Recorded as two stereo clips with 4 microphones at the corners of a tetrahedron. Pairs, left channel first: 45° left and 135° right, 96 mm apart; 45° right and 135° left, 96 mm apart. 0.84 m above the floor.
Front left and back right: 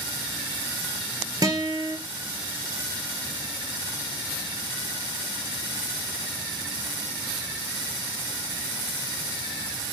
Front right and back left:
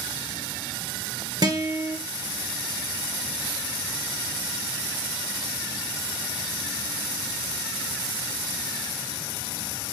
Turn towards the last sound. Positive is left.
turn(degrees=175)